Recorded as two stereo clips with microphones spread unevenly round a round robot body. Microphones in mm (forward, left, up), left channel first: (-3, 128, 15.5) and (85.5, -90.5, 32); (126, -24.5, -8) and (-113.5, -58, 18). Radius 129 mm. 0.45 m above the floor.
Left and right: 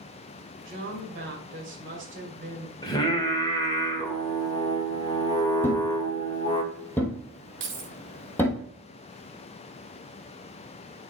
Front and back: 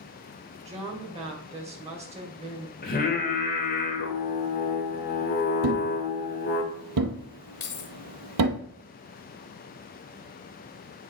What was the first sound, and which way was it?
A woman speaking, 105° right.